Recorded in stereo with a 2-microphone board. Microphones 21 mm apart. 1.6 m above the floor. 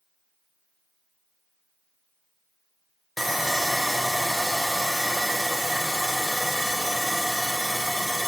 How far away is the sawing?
About 0.7 m.